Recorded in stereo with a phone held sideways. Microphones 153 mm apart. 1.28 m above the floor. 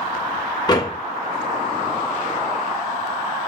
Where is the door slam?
25° left (ahead or behind), 2 m.